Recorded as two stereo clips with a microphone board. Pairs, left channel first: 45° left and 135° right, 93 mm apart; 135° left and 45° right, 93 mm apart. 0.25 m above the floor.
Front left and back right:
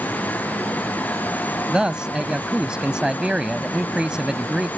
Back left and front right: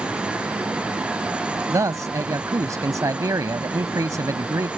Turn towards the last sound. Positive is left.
turn(degrees=-60)